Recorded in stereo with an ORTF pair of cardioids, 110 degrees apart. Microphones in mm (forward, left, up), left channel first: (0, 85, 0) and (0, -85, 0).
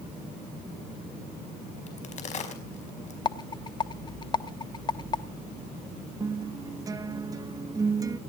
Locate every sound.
1.9 s a crack: 45° left, 5 m
3.2 s a rattle: 30° left, 1.1 m
6.2 s a guitar: 20° right, 1.3 m